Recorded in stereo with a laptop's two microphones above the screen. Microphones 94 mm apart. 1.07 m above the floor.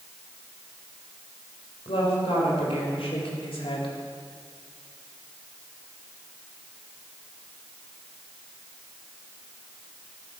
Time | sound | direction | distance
1.9 | a woman speaking | 80° left | 5.5 m